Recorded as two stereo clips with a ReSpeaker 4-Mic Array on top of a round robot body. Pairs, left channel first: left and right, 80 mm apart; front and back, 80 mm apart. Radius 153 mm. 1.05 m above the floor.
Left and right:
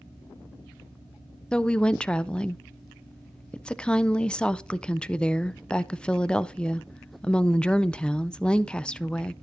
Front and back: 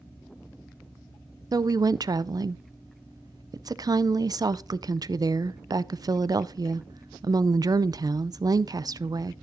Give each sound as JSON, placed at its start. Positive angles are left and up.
{"t": 1.5, "sound": "a woman speaking", "azimuth_deg": 165, "distance_m": 0.5}